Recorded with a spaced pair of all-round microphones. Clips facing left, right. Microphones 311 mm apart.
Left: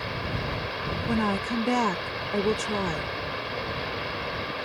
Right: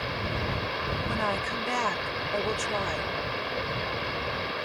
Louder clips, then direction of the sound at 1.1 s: Left 10 dB; 50° left (ahead or behind).